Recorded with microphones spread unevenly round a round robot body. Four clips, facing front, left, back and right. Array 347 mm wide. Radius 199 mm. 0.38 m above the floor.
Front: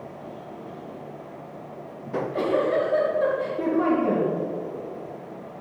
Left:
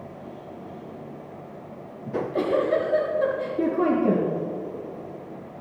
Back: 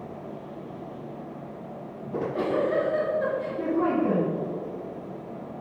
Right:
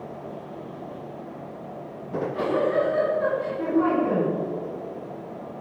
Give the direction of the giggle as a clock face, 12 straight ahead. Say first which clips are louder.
Left 2 dB, front 3 dB; 9 o'clock.